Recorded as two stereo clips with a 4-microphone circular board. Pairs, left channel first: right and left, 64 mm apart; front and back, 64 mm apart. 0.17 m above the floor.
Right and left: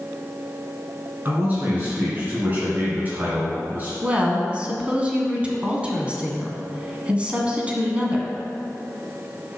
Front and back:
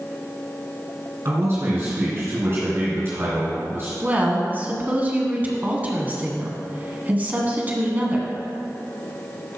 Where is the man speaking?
145° left, 2.5 m.